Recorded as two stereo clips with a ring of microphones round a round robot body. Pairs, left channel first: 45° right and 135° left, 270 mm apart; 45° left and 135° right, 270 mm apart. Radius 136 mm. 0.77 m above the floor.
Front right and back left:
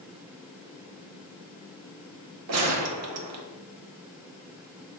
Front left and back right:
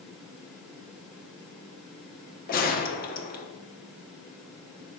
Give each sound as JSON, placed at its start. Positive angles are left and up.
{"t": 2.5, "sound": "a gunshot", "azimuth_deg": 105, "distance_m": 1.0}